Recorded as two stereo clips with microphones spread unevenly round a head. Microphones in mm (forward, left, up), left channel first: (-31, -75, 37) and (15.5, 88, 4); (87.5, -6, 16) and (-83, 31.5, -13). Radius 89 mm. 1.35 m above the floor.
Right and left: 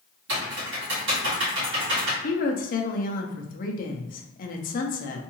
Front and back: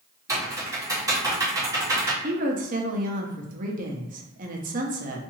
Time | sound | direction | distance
0.3 | typing on a keyboard | 90° left | 1.8 m
2.2 | a woman speaking | 150° right | 0.8 m